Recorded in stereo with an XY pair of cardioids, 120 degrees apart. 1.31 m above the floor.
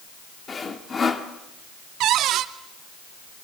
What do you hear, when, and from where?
0.5 s sawing: 30° left, 2.0 m
2.0 s a cupboard door: 70° right, 1.1 m